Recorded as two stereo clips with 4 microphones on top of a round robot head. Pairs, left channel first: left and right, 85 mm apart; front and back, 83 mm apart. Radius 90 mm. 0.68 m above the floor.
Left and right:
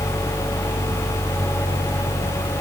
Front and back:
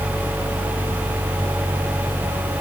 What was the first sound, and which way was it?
Only background noise.